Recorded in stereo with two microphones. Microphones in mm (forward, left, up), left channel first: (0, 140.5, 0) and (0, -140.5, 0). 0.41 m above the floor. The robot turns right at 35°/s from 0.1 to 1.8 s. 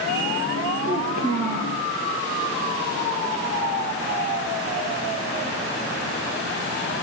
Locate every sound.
0.8 s a child speaking: 105° right, 7 m; by 1.8 s 75° right, 7 m